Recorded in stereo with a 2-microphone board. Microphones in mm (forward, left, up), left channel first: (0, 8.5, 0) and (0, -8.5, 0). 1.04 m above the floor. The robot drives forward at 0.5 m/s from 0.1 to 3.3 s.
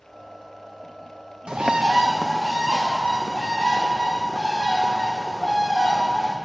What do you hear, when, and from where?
1.5 s a bird: 60° right (ahead or behind), 0.6 m; by 6.4 s 25° right (ahead or behind), 1.1 m